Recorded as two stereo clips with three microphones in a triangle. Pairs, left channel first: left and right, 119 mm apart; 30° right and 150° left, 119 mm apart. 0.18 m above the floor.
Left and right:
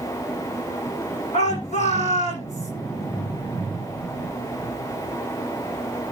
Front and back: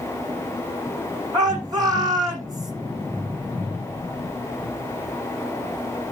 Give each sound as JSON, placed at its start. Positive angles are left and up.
{"t": 1.3, "sound": "a shout", "azimuth_deg": 95, "distance_m": 9.0}